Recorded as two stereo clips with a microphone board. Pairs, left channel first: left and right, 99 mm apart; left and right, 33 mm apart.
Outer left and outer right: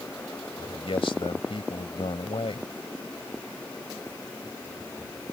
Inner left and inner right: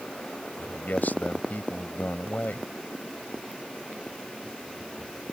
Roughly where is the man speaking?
Left.